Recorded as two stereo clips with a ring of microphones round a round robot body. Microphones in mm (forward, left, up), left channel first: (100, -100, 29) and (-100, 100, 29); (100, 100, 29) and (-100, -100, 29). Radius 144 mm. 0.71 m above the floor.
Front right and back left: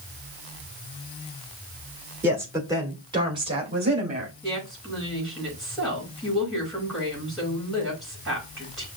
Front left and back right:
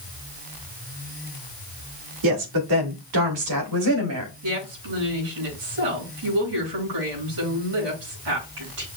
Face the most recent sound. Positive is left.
turn(degrees=-135)